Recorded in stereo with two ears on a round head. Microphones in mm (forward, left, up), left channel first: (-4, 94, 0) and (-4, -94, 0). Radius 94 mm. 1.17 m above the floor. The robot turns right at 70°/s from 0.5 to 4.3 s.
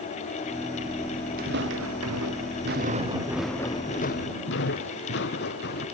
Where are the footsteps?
45° right (ahead or behind); by 5.8 s 50° left (ahead or behind).